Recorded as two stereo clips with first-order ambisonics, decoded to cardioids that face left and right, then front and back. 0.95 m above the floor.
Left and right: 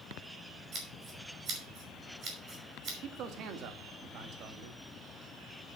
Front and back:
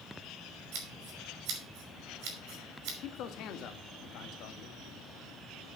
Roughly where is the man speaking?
Ahead right.